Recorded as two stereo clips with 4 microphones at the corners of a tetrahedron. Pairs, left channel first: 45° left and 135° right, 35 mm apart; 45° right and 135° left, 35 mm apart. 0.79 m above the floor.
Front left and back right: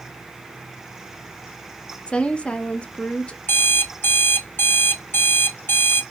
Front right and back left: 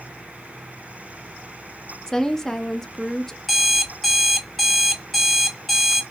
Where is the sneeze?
I don't hear a sneeze.